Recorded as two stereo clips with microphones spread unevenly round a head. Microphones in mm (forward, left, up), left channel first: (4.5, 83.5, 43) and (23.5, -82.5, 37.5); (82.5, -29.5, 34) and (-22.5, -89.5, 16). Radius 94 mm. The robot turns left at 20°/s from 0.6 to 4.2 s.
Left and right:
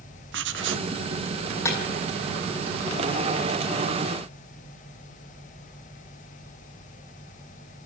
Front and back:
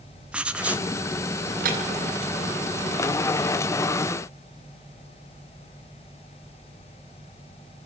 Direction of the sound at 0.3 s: 70° right.